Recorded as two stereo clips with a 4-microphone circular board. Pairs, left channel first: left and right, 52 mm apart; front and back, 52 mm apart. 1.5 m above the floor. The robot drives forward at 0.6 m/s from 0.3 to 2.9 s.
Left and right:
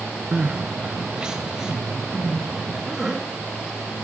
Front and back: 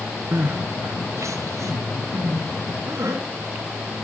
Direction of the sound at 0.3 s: 145° right.